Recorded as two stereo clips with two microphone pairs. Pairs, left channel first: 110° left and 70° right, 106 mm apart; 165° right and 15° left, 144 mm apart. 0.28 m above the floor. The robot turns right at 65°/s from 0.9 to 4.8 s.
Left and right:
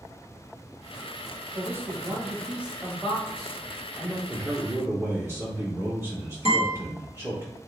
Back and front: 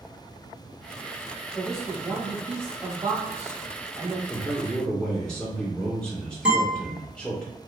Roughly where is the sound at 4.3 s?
Behind right.